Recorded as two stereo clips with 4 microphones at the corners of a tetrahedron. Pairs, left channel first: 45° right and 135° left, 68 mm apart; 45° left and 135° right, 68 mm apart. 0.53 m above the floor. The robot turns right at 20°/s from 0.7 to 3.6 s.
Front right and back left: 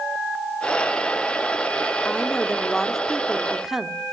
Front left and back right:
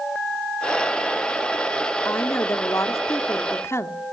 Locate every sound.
2.0 s a woman speaking: 25° left, 1.2 m; by 4.0 s 55° left, 1.2 m